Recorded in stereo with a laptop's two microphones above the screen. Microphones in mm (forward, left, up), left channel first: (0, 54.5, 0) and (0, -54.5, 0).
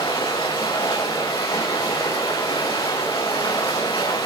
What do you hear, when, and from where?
0.0 s running water: 55° left (ahead or behind), 4 m